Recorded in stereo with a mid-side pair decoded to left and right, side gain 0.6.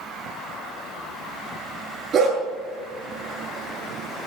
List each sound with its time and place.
2.1 s a dog barking: 45° right, 8.5 m